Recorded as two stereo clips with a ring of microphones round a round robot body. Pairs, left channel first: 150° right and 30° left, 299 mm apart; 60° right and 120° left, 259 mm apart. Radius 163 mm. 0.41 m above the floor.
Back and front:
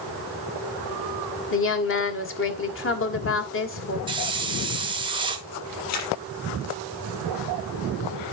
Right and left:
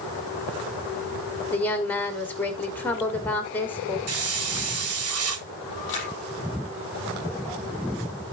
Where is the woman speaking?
140° right, 1.8 m.